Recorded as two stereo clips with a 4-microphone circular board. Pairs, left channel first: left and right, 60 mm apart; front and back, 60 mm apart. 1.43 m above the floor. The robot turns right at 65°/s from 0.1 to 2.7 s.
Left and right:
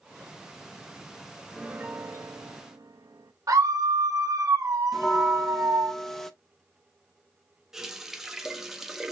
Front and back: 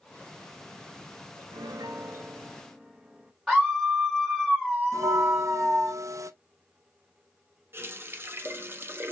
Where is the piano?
170° right, 0.6 m; by 3.3 s 95° right, 0.6 m.